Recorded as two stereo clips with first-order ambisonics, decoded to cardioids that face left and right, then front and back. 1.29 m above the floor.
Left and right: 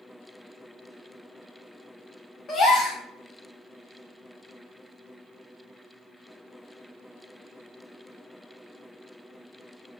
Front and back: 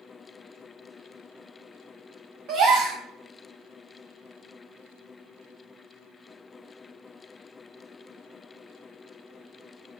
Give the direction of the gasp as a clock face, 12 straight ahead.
7 o'clock.